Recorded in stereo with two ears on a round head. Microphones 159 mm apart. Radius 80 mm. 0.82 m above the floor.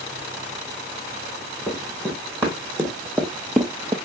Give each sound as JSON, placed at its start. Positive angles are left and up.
{"t": 1.7, "sound": "running footsteps", "side_deg": 10, "distance_m": 3.0}